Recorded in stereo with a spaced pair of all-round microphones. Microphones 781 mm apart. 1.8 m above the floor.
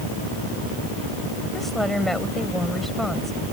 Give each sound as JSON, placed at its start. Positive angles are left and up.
{"t": 1.5, "sound": "a woman speaking", "side_deg": 0}